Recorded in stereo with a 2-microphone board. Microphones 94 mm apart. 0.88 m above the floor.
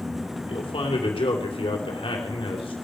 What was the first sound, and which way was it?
A man speaking, 65° left (ahead or behind).